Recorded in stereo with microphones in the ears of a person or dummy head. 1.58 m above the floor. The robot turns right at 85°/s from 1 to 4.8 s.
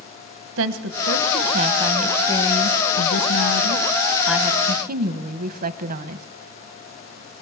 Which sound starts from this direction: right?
A woman speaking, at 0.6 s.